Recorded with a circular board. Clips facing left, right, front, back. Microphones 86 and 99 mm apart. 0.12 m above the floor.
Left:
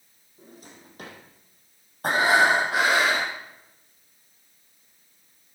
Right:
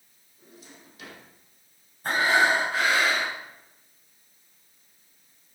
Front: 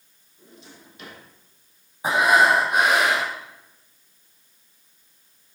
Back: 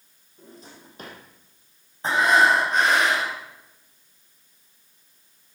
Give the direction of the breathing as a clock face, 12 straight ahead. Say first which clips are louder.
Left 2 dB, front 1 dB; 9 o'clock.